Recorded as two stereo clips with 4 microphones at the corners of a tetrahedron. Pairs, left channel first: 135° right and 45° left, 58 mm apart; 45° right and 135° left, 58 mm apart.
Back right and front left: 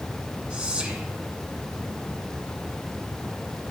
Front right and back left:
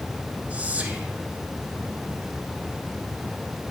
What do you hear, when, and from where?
0.5 s whispering: 100° left, 1.2 m